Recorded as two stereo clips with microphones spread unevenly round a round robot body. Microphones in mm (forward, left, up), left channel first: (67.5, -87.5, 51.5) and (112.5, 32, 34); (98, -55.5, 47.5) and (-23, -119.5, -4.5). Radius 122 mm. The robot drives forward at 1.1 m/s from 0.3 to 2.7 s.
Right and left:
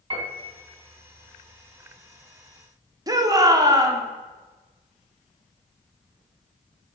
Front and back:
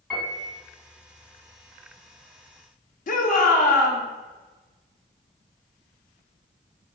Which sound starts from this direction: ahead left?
A shout, at 3.1 s.